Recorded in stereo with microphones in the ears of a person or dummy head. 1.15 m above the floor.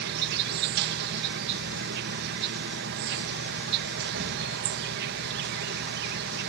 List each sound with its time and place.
0.0 s an insect: 55° right (ahead or behind)